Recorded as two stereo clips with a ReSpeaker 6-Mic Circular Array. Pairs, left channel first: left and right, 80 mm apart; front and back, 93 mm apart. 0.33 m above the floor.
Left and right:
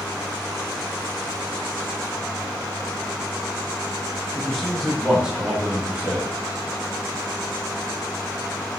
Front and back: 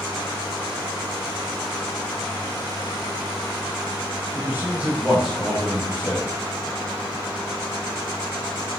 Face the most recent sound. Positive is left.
turn(degrees=-50)